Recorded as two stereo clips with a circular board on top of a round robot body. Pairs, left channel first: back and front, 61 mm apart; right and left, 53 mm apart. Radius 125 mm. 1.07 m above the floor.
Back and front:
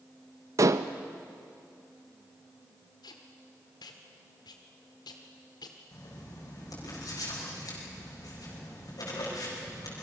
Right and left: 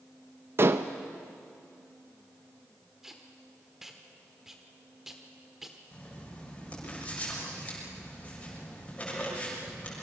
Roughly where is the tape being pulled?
Behind.